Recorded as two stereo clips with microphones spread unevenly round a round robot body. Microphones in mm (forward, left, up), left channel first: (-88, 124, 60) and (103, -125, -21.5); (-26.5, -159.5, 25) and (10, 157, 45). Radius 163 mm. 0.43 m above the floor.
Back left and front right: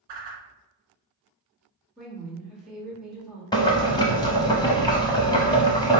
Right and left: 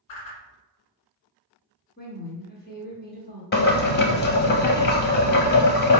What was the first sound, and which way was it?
A whoosh, 75° right.